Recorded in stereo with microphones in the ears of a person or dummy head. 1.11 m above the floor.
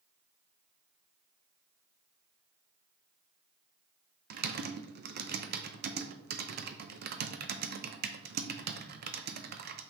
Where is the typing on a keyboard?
45° right (ahead or behind), 0.6 m.